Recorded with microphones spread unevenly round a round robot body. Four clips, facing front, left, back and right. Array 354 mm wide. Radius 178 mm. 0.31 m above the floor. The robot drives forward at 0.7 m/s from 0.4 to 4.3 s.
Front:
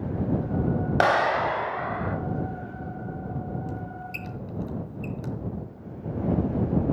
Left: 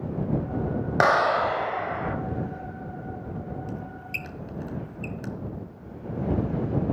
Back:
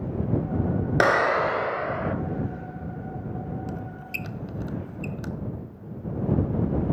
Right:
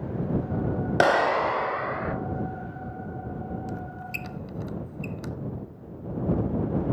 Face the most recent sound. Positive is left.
turn(degrees=-160)